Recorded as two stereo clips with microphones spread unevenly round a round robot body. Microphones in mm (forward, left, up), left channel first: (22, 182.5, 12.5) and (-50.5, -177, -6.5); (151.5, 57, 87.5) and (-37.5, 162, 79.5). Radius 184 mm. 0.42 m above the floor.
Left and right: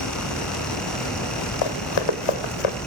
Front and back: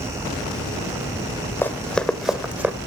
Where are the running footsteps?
50° left, 1.8 m; by 2.8 s 70° left, 1.9 m.